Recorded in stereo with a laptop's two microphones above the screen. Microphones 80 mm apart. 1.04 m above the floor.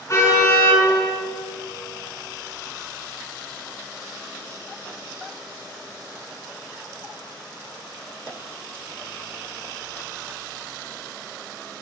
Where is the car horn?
40° left (ahead or behind), 7.5 m.